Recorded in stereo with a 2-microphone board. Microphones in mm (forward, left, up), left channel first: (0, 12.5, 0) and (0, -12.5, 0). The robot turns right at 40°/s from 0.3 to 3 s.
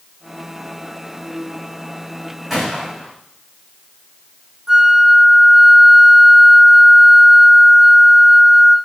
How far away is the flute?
About 1.3 m.